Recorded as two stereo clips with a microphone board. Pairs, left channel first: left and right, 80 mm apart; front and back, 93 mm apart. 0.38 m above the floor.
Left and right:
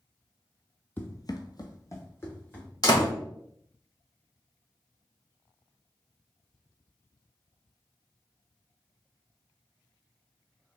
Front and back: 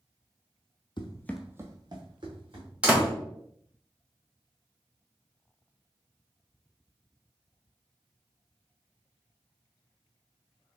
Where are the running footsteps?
25° left, 0.7 m; by 2.7 s 150° left, 2.5 m.